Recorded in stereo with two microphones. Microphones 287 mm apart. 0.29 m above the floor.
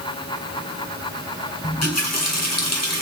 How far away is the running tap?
About 2.5 m.